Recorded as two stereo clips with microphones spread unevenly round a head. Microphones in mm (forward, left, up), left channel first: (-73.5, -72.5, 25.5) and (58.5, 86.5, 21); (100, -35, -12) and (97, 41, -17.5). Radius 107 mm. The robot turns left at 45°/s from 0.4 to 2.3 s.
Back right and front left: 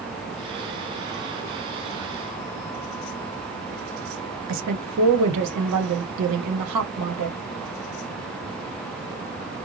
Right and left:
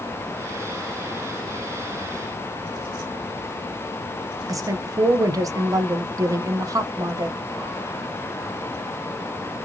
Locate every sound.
4.5 s a woman speaking: 45° left, 0.8 m